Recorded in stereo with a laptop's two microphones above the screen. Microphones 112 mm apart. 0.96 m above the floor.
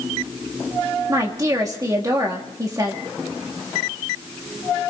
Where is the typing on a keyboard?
I don't hear typing on a keyboard.